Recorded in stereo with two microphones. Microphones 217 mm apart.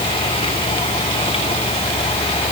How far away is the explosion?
No explosion in this recording.